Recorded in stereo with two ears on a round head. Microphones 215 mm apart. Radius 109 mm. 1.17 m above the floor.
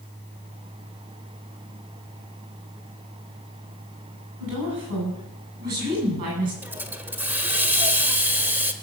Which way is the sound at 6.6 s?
5° right (ahead or behind).